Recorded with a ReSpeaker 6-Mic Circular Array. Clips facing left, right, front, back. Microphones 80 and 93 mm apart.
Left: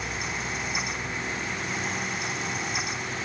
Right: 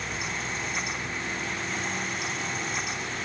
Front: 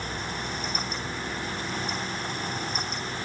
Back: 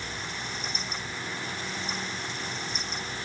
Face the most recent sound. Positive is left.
No sound to turn to.